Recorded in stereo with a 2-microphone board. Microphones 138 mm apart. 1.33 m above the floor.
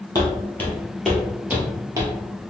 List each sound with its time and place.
0.1 s footsteps: 20° left (ahead or behind), 1.6 m; by 2.1 s 30° right (ahead or behind), 1.4 m